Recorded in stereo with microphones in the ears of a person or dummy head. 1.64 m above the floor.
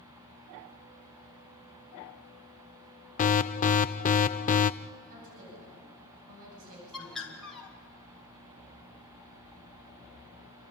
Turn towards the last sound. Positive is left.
turn(degrees=10)  # may be behind; listen again after turning